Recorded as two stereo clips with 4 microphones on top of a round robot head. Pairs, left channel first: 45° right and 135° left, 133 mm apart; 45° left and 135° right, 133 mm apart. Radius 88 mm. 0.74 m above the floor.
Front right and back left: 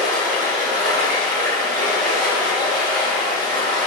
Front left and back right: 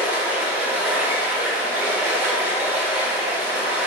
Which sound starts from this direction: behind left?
Running water, at 0.0 s.